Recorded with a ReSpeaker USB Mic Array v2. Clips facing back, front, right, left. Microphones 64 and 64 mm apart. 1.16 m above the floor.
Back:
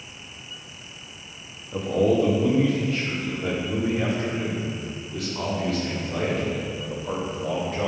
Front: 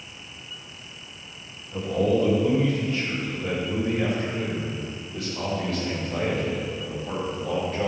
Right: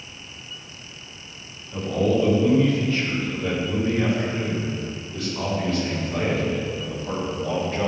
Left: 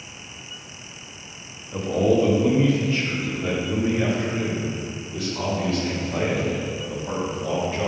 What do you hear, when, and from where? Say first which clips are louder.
1.7 s a man speaking: back 2 dB, left 2 dB; 155° left, 1.6 m; by 7.9 s 170° left, 5 m